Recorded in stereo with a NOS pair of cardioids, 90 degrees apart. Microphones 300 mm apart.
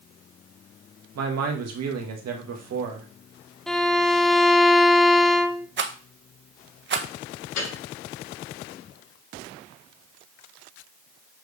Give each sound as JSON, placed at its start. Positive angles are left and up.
{"t": 1.1, "sound": "a man speaking", "azimuth_deg": -65, "distance_m": 2.0}
{"t": 3.7, "sound": "a violin", "azimuth_deg": 0, "distance_m": 0.6}
{"t": 5.8, "sound": "a rattle", "azimuth_deg": -40, "distance_m": 1.1}
{"t": 7.6, "sound": "a piano", "azimuth_deg": 65, "distance_m": 4.0}